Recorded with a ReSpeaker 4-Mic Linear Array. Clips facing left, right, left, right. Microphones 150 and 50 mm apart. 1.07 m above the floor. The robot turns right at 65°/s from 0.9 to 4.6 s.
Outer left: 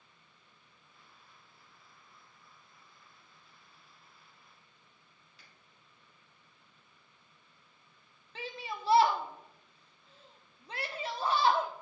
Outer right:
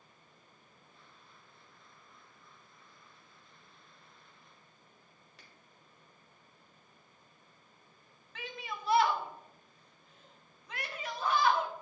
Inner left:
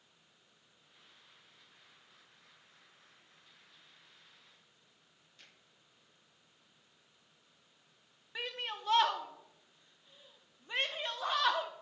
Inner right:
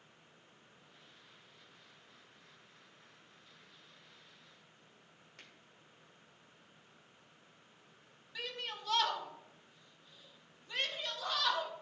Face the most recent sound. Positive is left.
turn(degrees=30)  # may be behind; listen again after turning